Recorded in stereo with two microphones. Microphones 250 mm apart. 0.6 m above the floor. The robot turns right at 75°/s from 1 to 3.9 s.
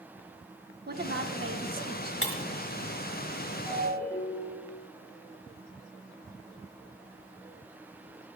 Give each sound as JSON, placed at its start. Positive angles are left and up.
{"t": 0.9, "sound": "a woman speaking", "azimuth_deg": -130, "distance_m": 1.2}
{"t": 2.2, "sound": "breaking glass", "side_deg": 55, "distance_m": 1.7}
{"t": 3.7, "sound": "a ringtone", "side_deg": -5, "distance_m": 6.5}